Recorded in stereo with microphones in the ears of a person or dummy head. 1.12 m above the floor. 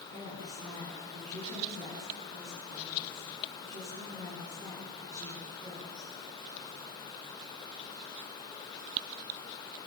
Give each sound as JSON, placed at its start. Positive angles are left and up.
{"t": 0.1, "sound": "a woman speaking", "side_deg": -40, "distance_m": 10.0}